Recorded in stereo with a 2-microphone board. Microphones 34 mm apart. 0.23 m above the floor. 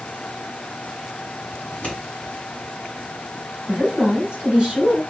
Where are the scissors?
30° left (ahead or behind), 2.0 m.